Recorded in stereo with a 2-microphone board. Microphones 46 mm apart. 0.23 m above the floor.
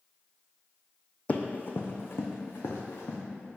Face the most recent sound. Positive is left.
turn(degrees=65)  # may be behind; listen again after turning